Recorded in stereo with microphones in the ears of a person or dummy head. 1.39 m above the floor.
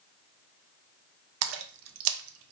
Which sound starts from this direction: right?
A splash, at 1.4 s.